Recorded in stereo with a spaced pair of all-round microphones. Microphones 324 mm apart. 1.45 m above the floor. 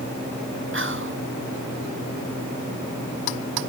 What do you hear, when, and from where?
0.7 s whispering: 40° right (ahead or behind), 1.2 m